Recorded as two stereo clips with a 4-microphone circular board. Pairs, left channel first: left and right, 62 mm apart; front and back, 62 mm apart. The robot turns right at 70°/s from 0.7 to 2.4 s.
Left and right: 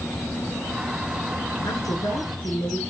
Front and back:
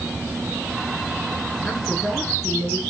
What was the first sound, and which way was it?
A woman speaking, 70° left.